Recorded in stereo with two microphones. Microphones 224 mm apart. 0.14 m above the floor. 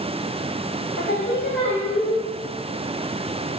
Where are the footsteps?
I don't hear footsteps.